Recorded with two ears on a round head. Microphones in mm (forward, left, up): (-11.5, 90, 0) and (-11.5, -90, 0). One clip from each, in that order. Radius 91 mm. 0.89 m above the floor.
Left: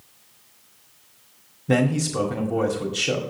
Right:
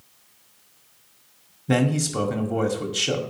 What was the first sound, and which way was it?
A man speaking, 10° right (ahead or behind).